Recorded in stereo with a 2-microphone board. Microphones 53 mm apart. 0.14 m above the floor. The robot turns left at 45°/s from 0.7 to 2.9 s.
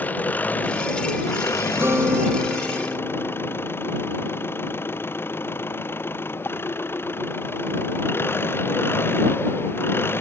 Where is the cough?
I don't hear a cough.